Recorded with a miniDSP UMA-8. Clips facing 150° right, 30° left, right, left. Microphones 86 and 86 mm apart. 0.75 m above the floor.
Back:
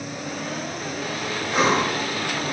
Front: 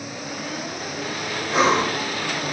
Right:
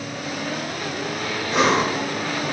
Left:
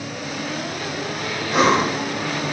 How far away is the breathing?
About 1.0 m.